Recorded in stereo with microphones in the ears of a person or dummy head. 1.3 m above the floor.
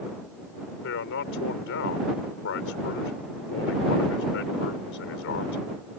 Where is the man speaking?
70° left (ahead or behind).